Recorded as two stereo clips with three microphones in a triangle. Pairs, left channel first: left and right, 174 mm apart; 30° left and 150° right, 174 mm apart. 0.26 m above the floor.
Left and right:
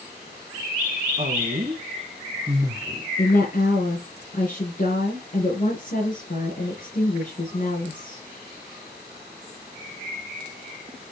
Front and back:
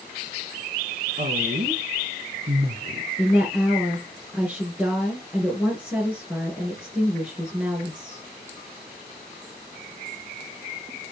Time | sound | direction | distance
1.2 | a woman speaking | 125° right | 1.9 m
3.2 | a woman speaking | 130° left | 4 m